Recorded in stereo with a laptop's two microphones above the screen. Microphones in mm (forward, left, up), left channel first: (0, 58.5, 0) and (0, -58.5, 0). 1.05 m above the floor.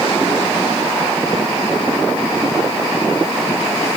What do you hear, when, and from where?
Only background noise.